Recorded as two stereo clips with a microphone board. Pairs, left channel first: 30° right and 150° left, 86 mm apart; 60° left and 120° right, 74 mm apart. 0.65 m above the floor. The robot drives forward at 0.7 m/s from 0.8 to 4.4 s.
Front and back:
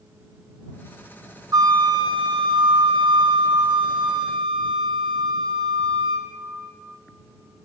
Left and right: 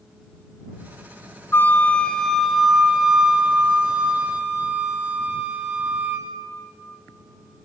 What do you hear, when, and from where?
1.5 s a flute: 115° left, 0.7 m; by 6.3 s 165° left, 2.5 m